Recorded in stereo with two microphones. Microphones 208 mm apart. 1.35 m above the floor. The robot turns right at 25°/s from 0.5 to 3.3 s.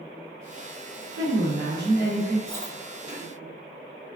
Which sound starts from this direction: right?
A woman speaking, at 1.1 s.